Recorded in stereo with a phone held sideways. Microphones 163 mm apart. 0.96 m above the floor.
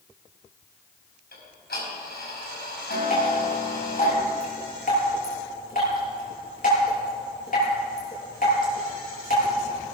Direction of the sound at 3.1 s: 55° left (ahead or behind).